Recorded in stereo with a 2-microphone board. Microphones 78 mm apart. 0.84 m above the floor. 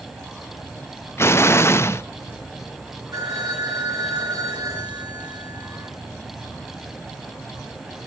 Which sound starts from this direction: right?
A phone ringing, at 3.1 s.